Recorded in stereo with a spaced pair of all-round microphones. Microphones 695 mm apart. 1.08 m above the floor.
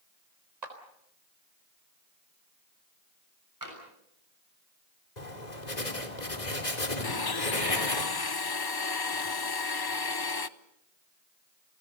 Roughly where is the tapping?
Right.